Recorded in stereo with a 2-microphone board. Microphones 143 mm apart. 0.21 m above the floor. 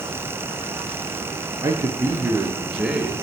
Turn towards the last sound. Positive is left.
turn(degrees=-5)  # may be behind; listen again after turning